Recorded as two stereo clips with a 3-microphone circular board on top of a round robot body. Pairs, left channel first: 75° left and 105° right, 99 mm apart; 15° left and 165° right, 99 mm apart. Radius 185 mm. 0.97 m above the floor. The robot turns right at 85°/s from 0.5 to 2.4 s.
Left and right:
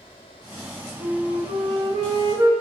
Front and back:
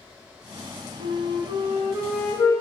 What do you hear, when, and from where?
1.0 s a flute: 170° right, 0.8 m; by 2.5 s 50° right, 0.8 m